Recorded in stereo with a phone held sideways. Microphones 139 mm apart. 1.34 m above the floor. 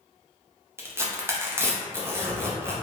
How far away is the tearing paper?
About 0.6 m.